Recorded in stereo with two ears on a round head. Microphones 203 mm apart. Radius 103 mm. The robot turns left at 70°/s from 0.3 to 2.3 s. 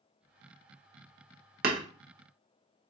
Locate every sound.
1.6 s hammering: 45° right (ahead or behind), 0.8 m; by 1.8 s 35° right (ahead or behind), 0.8 m